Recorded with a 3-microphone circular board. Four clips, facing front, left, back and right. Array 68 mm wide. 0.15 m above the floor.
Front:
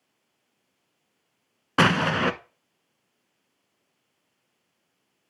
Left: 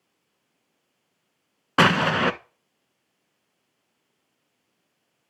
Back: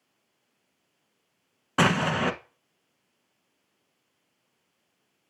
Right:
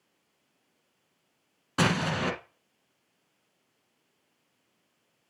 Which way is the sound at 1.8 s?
70° left.